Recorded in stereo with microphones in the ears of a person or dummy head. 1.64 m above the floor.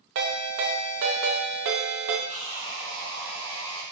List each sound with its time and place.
0.1 s a ringtone: 45° right (ahead or behind), 0.7 m
2.3 s sawing: 15° right (ahead or behind), 2 m